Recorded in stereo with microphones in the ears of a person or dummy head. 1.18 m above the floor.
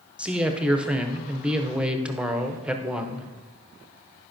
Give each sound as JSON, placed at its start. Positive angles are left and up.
{"t": 0.2, "sound": "a man speaking", "side_deg": -5, "distance_m": 0.5}